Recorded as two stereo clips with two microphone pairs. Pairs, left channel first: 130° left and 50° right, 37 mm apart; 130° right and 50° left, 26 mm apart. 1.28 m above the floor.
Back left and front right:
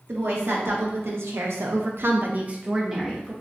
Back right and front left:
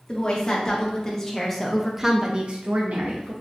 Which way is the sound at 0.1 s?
70° right.